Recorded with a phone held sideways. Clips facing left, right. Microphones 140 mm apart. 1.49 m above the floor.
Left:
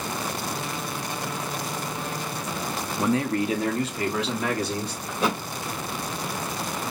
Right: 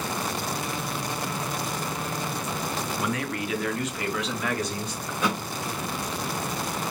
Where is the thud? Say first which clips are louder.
Left 2 dB; 30° left (ahead or behind), 2 m.